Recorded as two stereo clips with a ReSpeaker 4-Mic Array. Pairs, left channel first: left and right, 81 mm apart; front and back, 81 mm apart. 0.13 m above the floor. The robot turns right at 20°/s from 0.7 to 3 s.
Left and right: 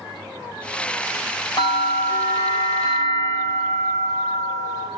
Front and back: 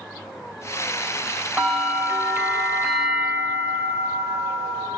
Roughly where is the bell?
Left.